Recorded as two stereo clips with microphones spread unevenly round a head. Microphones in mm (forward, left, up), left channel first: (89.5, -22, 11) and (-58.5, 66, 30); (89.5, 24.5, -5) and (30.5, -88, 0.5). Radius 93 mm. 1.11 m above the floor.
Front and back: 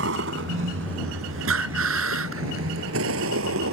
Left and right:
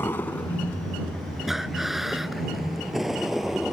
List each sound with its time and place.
0.0 s a vehicle: 140° left; by 3.7 s 155° left
1.5 s breathing: 155° left